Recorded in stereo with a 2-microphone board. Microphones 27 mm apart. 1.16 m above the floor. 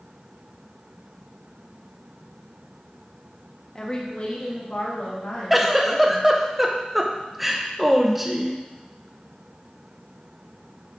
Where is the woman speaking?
20° left (ahead or behind), 1.0 m; by 6.3 s 80° left, 2.5 m.